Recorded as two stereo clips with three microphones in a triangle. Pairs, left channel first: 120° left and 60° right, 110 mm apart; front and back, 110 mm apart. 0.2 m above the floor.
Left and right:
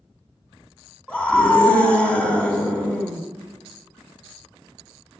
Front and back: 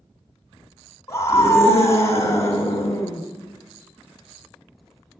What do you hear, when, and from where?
1.1 s a scream: 45° left, 1.4 m